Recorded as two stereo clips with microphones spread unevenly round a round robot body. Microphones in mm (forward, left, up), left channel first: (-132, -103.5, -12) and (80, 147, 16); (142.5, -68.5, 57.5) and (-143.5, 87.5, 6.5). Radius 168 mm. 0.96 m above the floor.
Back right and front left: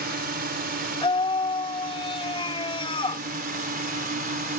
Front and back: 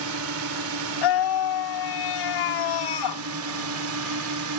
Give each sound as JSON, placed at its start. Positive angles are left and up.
{"t": 0.0, "sound": "a drone", "azimuth_deg": 110}
{"t": 1.0, "sound": "a scream", "azimuth_deg": -55}